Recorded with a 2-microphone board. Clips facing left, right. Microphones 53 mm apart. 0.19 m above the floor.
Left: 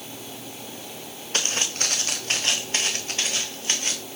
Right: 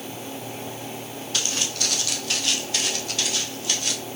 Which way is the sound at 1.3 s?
40° left (ahead or behind).